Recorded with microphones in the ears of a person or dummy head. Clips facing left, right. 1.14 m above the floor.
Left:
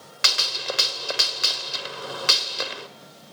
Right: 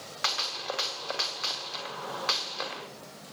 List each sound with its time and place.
0.2 s a gunshot: 35° left (ahead or behind), 1.1 m